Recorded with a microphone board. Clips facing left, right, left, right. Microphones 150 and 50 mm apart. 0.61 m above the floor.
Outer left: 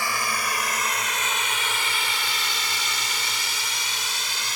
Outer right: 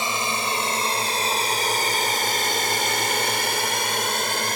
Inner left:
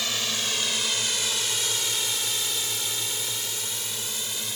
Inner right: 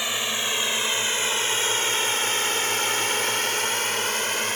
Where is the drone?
25° right (ahead or behind); by 4.6 s 55° right (ahead or behind).